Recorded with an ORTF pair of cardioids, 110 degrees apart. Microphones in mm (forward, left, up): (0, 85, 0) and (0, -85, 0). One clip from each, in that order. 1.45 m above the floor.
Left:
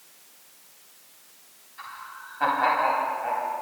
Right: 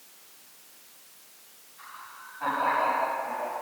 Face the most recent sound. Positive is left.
turn(degrees=70)